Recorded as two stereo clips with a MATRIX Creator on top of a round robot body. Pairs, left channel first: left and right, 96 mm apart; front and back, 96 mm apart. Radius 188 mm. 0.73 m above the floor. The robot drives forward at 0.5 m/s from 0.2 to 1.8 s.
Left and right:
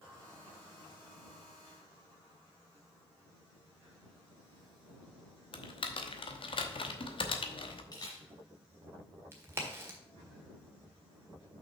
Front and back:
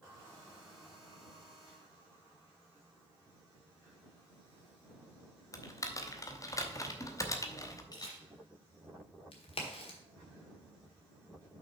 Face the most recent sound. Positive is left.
turn(degrees=-25)